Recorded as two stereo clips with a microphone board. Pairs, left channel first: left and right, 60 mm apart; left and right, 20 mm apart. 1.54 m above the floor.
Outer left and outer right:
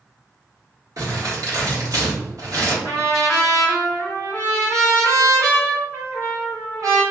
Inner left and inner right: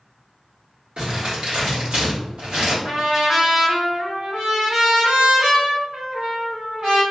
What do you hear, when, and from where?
1.0 s crumpling: 65° right (ahead or behind), 1.6 m
2.8 s a trumpet: 55° right (ahead or behind), 1.9 m